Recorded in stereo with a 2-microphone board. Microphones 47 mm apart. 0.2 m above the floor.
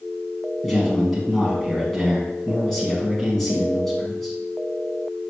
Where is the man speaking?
5° left (ahead or behind), 1.4 m.